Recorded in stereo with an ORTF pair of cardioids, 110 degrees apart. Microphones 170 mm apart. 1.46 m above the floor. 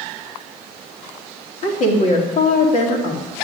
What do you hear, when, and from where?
1.6 s a woman speaking: 50° left, 3.5 m